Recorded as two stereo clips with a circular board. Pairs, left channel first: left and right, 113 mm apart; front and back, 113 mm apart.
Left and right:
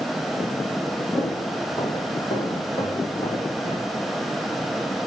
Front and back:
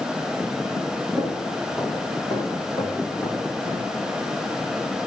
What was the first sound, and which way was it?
Footsteps, 50° left.